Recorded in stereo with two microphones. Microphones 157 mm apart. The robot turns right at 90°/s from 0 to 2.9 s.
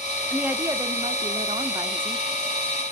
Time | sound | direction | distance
0.3 | a woman speaking | 175° right | 0.7 m